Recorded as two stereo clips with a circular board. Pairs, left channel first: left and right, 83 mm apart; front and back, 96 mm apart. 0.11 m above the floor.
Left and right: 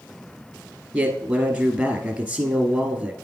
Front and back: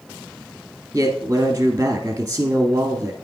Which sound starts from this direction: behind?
A man speaking, at 0.9 s.